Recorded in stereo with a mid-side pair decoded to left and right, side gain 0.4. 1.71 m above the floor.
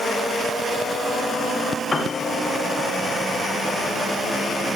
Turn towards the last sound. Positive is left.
turn(degrees=40)